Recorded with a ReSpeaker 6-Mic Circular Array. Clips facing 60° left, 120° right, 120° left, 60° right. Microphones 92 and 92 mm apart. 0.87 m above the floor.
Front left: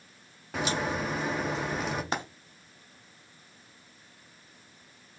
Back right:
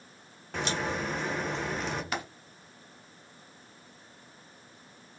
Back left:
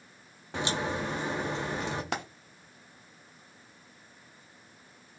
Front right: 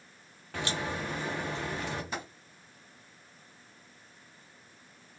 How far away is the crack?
About 1.0 m.